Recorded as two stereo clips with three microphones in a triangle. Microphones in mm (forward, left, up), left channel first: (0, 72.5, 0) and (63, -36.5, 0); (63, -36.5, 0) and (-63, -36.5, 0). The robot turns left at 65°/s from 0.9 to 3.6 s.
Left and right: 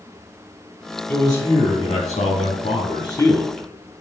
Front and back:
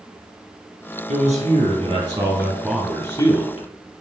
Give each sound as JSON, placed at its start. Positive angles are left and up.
{"t": 1.1, "sound": "a man speaking", "azimuth_deg": -170, "distance_m": 3.5}